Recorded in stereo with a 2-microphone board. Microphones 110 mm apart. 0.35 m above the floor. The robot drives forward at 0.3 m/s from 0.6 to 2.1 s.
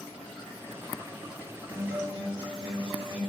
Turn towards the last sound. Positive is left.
turn(degrees=-55)  # may be behind; listen again after turning